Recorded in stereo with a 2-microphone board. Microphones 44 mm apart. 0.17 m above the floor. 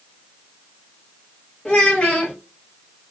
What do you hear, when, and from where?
1.6 s a child speaking: 25° left (ahead or behind), 2.0 m